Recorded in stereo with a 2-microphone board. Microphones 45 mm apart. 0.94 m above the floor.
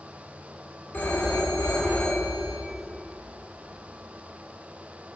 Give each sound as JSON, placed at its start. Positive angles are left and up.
{"t": 0.9, "sound": "a phone ringing", "side_deg": 45, "distance_m": 2.0}